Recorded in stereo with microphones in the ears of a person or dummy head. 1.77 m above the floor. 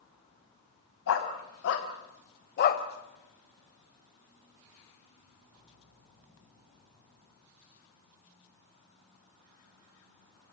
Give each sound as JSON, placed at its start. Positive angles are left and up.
{"t": 1.1, "sound": "a dog barking", "side_deg": 70, "distance_m": 3.5}